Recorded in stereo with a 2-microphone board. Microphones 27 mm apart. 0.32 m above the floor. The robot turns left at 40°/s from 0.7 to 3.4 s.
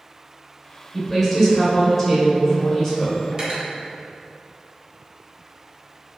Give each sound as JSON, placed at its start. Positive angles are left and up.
{"t": 0.9, "sound": "a woman speaking", "side_deg": -5, "distance_m": 1.0}
{"t": 3.3, "sound": "cutlery clinking", "side_deg": -30, "distance_m": 0.7}